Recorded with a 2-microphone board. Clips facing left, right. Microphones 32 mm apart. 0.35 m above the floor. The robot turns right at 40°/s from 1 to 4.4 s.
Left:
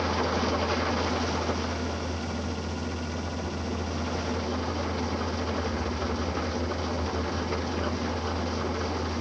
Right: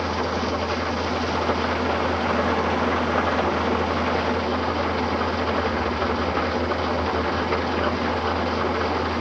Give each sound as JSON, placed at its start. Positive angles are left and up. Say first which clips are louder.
{"t": 0.0, "sound": "an engine running", "louder": "right 3 dB", "azimuth_deg": -170}